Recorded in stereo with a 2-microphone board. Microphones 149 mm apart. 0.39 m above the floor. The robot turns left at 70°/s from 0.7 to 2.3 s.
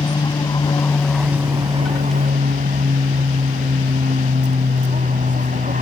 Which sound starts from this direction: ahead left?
An aircraft, at 0.0 s.